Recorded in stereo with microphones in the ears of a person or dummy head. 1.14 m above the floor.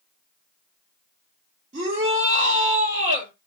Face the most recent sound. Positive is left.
turn(degrees=-40)  # may be behind; listen again after turning